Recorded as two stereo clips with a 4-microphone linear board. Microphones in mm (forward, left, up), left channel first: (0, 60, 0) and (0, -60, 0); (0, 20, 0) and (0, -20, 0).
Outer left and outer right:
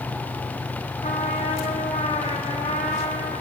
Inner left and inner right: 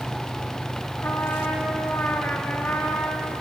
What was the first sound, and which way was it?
A trumpet, 75° left (ahead or behind).